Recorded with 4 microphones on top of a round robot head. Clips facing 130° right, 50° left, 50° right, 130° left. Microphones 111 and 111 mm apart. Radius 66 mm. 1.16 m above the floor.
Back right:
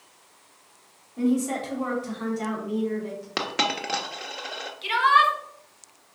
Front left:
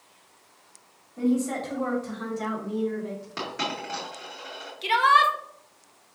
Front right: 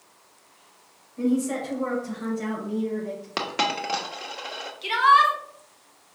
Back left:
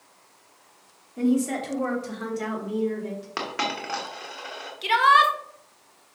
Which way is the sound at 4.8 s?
95° left.